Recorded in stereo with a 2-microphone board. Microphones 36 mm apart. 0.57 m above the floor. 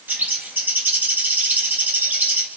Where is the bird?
65° right (ahead or behind), 3 m.